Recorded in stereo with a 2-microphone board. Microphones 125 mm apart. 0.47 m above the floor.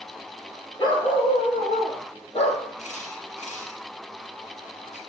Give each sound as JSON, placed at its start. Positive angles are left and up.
{"t": 0.8, "sound": "a dog barking", "side_deg": 35, "distance_m": 4.5}
{"t": 2.8, "sound": "a camera shutter", "side_deg": 75, "distance_m": 7.0}